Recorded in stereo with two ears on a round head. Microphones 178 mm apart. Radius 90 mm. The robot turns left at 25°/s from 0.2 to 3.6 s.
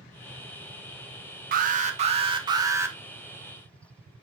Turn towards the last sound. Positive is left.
turn(degrees=175)